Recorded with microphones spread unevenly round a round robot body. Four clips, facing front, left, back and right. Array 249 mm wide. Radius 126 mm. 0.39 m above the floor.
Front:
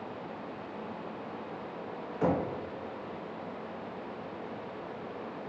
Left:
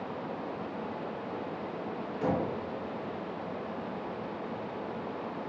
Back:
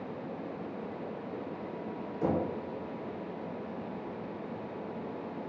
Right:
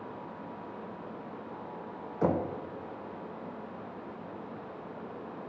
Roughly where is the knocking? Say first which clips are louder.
Right 2 dB, front 1 dB; right.